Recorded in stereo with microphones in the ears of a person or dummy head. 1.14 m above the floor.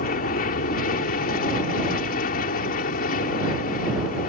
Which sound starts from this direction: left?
An aircraft, at 0.0 s.